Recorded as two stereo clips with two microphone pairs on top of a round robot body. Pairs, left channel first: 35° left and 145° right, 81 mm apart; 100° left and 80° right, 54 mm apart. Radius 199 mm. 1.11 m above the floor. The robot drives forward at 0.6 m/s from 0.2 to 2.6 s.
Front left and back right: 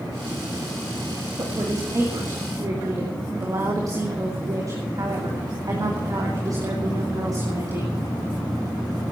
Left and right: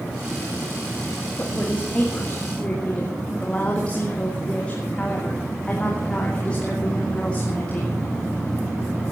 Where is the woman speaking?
165° left, 2 m.